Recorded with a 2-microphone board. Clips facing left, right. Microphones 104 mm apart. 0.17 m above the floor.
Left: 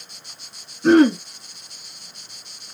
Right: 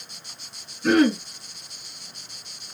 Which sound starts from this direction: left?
Throat clearing, at 0.8 s.